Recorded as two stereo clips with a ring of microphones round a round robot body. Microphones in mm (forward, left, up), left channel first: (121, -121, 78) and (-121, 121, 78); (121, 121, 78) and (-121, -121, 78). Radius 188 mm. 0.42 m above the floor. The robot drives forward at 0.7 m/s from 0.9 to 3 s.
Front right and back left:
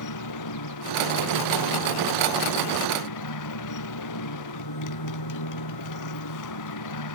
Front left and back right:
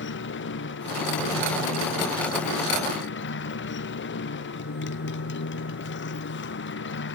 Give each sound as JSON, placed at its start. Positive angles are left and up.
{"t": 0.0, "sound": "a motorcycle", "azimuth_deg": -10}